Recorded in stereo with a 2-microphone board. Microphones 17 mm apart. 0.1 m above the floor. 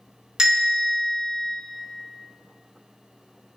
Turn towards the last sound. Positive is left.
turn(degrees=-40)  # may be behind; listen again after turning